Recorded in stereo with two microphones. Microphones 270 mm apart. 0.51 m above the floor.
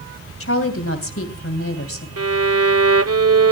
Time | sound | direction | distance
0.4 | a woman speaking | 55° left (ahead or behind) | 2.5 m
2.2 | a violin | 65° right (ahead or behind) | 0.6 m